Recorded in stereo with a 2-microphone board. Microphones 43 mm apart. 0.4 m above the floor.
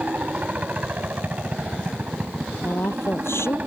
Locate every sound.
0.0 s a helicopter: 40° right (ahead or behind)
2.6 s a woman speaking: 75° left (ahead or behind)